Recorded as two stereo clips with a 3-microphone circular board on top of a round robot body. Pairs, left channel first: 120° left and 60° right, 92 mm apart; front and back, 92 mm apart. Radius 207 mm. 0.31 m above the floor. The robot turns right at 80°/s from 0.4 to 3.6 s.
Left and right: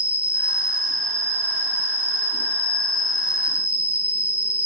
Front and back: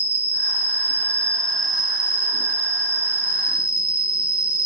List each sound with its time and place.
0.0 s an insect: 5° right, 1.6 m; by 4.7 s 110° right, 1.6 m